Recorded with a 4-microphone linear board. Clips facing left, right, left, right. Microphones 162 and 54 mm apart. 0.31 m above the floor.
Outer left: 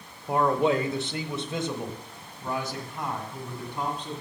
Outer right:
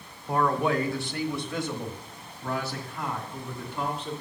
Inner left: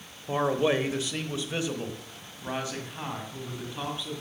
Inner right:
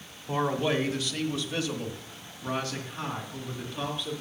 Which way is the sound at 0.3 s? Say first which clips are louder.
Outer left 2 dB, inner left 2 dB; 20° left (ahead or behind).